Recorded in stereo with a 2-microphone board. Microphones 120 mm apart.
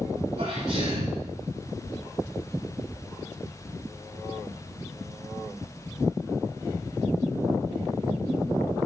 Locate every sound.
0.4 s a sneeze: 80° right, 9 m